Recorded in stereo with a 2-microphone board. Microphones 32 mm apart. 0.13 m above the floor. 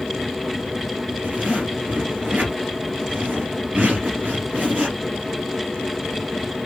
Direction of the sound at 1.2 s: 60° right (ahead or behind).